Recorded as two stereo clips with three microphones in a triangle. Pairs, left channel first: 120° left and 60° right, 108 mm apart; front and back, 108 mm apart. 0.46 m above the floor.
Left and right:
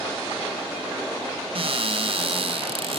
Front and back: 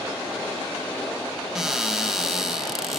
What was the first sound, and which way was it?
A cupboard door, 95° right.